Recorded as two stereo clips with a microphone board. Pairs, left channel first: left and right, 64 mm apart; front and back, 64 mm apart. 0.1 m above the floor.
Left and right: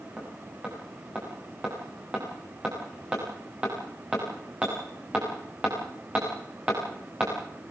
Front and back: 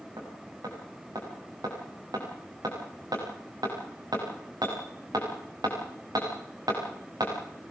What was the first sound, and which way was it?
Hammering, 160° right.